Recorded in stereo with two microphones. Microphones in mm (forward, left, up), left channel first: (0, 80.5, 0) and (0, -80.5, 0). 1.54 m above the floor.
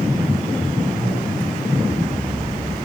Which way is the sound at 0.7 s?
35° right (ahead or behind).